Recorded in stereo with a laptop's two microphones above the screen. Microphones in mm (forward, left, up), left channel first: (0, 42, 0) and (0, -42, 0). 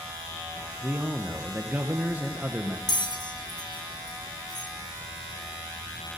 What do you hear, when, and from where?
0.8 s a man speaking: 20° right (ahead or behind), 0.9 m
2.9 s a bell: 55° left (ahead or behind), 3.5 m